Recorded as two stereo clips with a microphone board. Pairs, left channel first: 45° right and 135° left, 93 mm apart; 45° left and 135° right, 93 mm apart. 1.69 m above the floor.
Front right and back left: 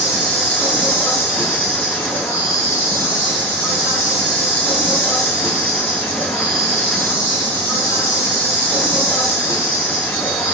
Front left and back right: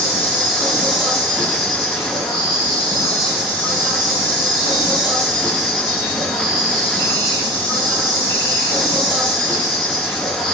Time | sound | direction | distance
0.0 | an insect | 65° right | 1.6 m